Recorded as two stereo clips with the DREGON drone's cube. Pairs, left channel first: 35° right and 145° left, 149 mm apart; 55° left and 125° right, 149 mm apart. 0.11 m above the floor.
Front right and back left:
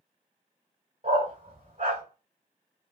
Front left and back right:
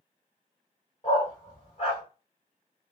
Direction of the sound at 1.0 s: 105° left.